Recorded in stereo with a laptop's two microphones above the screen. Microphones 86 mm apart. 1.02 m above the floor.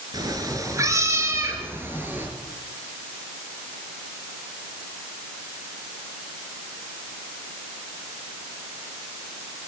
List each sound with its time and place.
0.1 s a cat meowing: 50° right (ahead or behind), 3.5 m; by 2.3 s 20° right (ahead or behind), 4 m